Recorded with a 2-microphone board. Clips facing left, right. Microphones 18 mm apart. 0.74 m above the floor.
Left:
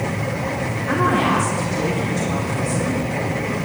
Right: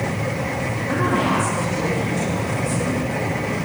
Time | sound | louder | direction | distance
0.9 | a woman speaking | left 3 dB | 30° left (ahead or behind) | 2 m